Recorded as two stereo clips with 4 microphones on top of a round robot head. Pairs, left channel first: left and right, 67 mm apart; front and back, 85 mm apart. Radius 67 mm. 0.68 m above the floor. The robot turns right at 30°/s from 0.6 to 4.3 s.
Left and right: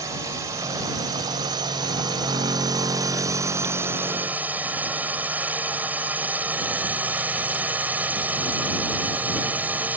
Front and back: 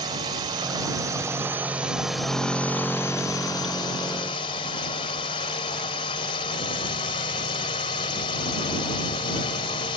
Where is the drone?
135° right; by 10.0 s 25° right.